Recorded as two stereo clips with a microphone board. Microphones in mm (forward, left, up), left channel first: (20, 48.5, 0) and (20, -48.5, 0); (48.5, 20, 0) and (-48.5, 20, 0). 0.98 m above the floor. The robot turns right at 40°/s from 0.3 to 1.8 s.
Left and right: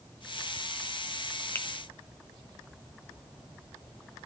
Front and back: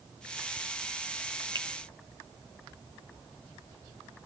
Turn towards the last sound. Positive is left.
turn(degrees=160)